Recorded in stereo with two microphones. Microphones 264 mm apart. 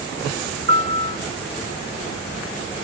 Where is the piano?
40° right (ahead or behind), 1.0 m.